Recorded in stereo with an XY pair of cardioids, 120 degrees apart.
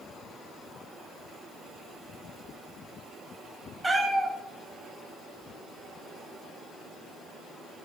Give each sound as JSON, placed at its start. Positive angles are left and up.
{"t": 3.8, "sound": "a cat meowing", "azimuth_deg": -20, "distance_m": 3.0}